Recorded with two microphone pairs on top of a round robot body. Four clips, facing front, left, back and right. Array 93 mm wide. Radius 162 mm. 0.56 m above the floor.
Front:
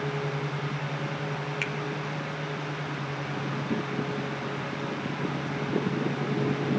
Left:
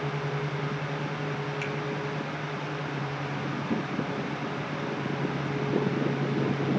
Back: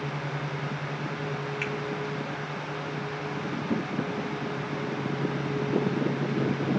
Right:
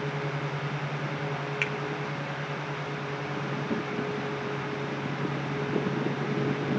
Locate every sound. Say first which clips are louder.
1.6 s a finger snap: right 1 dB, back 1 dB; 55° right, 2 m